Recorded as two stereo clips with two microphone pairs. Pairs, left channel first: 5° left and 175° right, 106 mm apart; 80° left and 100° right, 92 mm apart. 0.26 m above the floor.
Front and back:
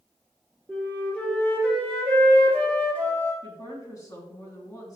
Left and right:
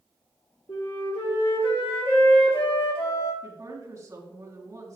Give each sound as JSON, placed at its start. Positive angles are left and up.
{"t": 0.7, "sound": "a flute", "azimuth_deg": 80, "distance_m": 3.0}
{"t": 3.4, "sound": "a woman speaking", "azimuth_deg": -45, "distance_m": 2.5}